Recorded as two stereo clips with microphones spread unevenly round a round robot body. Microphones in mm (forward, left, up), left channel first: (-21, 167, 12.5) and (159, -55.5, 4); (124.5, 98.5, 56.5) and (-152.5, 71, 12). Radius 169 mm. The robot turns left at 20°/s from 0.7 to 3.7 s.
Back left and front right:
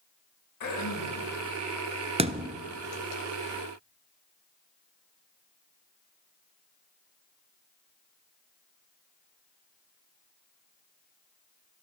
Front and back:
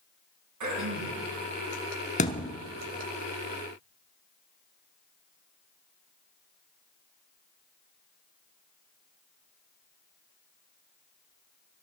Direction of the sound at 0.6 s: 170° left.